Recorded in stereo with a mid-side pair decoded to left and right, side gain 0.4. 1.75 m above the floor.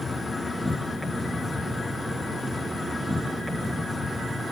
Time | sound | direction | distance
0.0 | an insect | 25° left | 2.5 m